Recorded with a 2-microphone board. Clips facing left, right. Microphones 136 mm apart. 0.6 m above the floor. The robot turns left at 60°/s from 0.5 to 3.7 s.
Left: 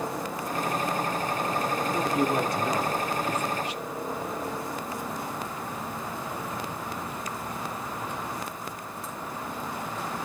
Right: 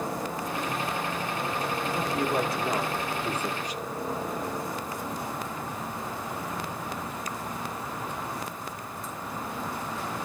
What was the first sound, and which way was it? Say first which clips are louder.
A man speaking: left 2 dB; 35° left.